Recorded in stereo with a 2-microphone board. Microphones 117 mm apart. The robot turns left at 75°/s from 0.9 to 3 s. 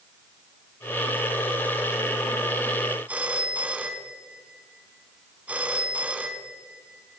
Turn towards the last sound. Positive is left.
turn(degrees=-15)  # may be behind; listen again after turning